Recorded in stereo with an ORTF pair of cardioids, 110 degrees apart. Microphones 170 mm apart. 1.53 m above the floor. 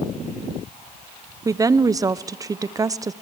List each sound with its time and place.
1.4 s a woman speaking: 20° right, 0.8 m